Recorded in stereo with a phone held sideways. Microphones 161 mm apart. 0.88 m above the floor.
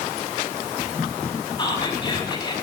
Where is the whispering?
30° left (ahead or behind), 5.5 m.